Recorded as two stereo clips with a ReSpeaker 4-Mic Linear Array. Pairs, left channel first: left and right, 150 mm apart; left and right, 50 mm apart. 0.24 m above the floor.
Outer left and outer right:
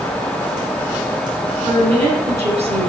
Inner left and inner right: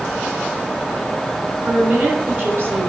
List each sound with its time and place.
1.6 s a woman speaking: 45° right (ahead or behind), 3 m